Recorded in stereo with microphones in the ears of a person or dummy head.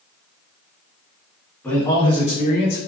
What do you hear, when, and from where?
1.6 s a man speaking: 5° left (ahead or behind), 1.2 m; by 2.9 s 55° left (ahead or behind), 0.9 m